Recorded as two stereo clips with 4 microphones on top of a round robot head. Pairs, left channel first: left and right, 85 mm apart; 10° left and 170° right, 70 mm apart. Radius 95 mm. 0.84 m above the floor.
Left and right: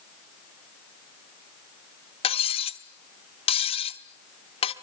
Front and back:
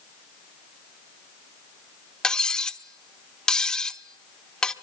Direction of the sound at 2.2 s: 90° left.